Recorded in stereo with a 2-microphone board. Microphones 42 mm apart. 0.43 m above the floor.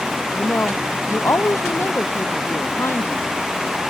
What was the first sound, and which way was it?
A woman speaking, 70° left (ahead or behind).